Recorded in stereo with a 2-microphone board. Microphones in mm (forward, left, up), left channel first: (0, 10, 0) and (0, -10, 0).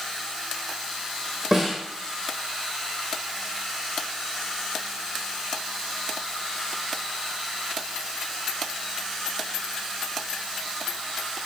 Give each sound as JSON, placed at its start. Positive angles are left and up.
{"t": 1.5, "sound": "a snare drum", "side_deg": -15, "distance_m": 1.6}